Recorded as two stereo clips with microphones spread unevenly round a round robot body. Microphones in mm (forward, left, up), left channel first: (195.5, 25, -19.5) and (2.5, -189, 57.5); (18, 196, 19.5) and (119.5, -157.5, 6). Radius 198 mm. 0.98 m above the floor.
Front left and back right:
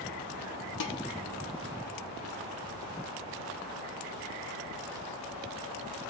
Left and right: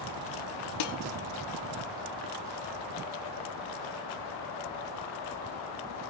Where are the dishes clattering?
90° left, 1.4 m.